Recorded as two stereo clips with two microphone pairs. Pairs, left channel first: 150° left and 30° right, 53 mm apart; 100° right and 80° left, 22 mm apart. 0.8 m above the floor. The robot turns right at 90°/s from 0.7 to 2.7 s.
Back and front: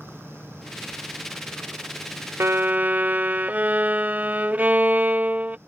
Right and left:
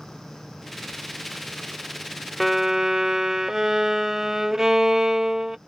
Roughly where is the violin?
Ahead.